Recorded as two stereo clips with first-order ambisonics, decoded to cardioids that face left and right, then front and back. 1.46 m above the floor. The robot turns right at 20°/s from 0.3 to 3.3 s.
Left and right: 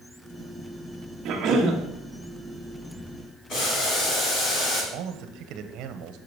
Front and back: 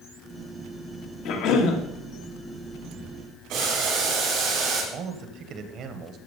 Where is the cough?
40° right, 2 m; by 1.8 s 30° right, 2 m.